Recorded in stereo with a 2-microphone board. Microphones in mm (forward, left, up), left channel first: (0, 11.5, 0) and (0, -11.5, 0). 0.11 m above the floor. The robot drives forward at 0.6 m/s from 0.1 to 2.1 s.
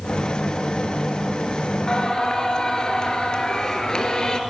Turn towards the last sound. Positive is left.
turn(degrees=35)  # may be behind; listen again after turning